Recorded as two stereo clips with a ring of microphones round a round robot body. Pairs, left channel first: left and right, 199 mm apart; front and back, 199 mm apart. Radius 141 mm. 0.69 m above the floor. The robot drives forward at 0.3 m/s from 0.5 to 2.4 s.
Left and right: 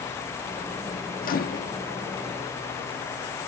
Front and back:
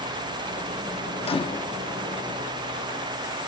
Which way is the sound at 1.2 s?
55° left.